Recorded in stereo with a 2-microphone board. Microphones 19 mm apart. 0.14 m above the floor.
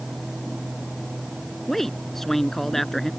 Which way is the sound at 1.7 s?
15° left (ahead or behind).